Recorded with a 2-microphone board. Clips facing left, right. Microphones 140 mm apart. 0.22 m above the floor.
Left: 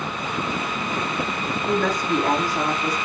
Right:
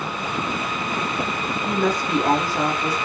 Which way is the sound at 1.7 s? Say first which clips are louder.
Even; 20° right (ahead or behind).